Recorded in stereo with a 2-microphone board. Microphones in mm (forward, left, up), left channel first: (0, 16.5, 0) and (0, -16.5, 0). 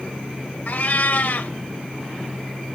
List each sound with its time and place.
0.7 s a cat meowing: 60° left (ahead or behind), 0.8 m